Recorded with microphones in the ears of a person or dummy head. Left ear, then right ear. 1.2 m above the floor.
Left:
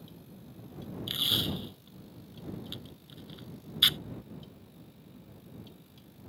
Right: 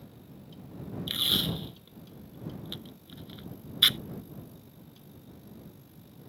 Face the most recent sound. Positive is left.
turn(degrees=-15)  # may be behind; listen again after turning